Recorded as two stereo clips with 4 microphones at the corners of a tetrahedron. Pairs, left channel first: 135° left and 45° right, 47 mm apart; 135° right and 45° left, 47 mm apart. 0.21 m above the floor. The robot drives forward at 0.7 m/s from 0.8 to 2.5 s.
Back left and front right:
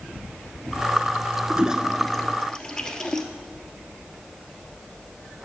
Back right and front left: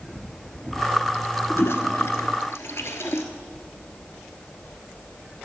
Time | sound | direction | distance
1.5 | a toilet flushing | 105° right | 0.5 m